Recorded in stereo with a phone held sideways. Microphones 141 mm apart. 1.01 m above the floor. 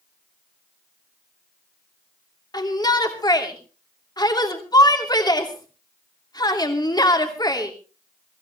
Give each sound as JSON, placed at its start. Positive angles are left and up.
{"t": 2.5, "sound": "a shout", "side_deg": 30, "distance_m": 2.5}